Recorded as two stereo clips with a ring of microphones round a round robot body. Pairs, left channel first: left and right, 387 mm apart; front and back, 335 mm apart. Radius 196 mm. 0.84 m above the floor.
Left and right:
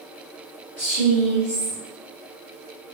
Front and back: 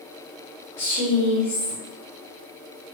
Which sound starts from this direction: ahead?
A woman speaking, at 0.8 s.